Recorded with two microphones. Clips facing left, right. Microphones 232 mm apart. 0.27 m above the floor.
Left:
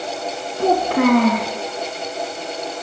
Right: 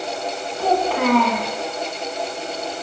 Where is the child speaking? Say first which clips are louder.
Left 4 dB; 50° left (ahead or behind), 1.7 m.